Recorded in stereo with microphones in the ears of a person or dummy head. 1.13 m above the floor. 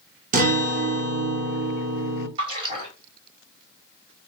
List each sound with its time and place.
0.3 s a guitar: 40° right (ahead or behind), 0.7 m
2.4 s a splash: 30° right (ahead or behind), 1.4 m